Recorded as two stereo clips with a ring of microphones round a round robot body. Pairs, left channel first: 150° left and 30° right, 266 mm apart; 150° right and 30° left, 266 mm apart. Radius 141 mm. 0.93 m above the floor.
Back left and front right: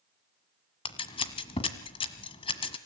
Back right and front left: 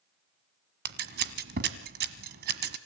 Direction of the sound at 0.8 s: 80° left.